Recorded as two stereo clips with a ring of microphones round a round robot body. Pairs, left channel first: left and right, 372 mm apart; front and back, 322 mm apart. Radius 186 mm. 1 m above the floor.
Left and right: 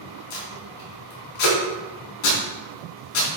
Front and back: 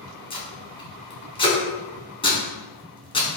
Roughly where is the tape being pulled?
Left.